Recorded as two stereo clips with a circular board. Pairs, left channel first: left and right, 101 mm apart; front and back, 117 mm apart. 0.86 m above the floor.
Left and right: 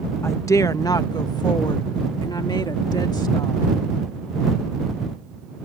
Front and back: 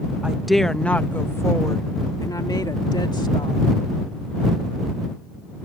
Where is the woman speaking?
110° left; by 3.7 s 45° left.